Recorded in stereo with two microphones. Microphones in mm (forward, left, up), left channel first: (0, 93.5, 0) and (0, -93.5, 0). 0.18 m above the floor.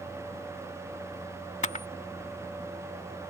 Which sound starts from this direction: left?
A camera shutter, at 1.6 s.